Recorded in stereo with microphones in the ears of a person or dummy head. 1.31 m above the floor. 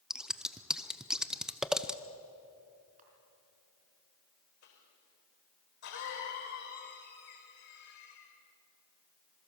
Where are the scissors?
5° right (ahead or behind), 0.7 m.